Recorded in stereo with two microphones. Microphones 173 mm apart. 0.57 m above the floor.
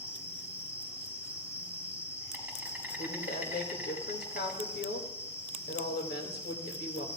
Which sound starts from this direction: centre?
An insect, at 0.0 s.